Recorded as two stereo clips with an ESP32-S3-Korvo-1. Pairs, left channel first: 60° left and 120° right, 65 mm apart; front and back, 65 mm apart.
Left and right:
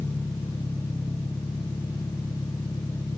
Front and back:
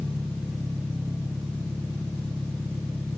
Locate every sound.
0.0 s an engine running: 85° left, 4 m